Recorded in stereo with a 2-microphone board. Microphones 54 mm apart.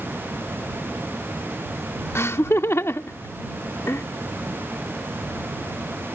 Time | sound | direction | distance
2.1 | laughter | 55° left (ahead or behind) | ?